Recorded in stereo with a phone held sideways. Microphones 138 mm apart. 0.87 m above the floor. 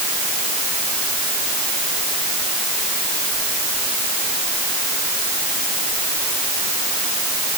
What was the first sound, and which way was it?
Only background noise.